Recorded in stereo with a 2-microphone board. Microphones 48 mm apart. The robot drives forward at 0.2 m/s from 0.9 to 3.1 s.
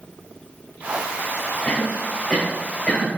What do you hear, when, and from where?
1.6 s a cough: 10° left (ahead or behind), 0.9 m